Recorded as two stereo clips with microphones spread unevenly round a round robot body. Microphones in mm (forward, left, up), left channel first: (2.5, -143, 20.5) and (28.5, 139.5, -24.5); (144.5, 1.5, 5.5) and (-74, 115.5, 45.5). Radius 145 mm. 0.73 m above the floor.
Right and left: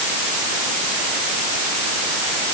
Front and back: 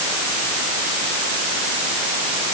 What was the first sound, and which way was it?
Only background noise.